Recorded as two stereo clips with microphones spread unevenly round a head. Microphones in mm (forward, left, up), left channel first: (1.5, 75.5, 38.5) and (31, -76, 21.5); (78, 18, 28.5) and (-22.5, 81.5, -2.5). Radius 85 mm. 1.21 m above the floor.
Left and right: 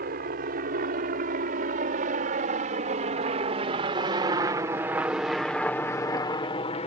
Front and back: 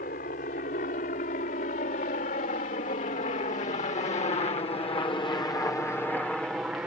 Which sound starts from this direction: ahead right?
A helicopter, at 0.0 s.